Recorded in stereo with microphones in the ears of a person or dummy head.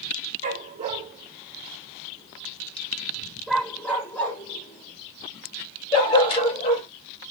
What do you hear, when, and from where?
0.4 s a dog barking: 40° right (ahead or behind), 2 m; by 6.9 s 35° left (ahead or behind), 3 m